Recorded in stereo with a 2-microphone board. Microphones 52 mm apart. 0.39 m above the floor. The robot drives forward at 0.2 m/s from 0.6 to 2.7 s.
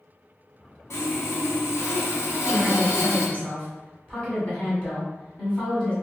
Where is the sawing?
80° left, 0.8 m; by 3.3 s 75° left (ahead or behind), 0.8 m.